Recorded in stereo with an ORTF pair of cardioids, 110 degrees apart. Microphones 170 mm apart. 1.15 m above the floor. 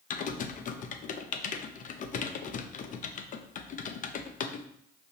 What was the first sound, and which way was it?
Typing on a keyboard, 50° left.